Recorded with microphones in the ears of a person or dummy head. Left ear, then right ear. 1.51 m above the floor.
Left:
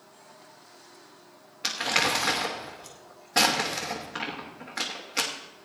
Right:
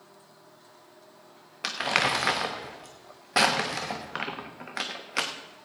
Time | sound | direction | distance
1.6 | crumpling | 15° right (ahead or behind) | 1.0 m